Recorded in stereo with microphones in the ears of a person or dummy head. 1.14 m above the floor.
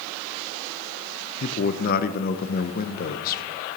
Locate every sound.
1.4 s a man speaking: 45° left (ahead or behind), 0.6 m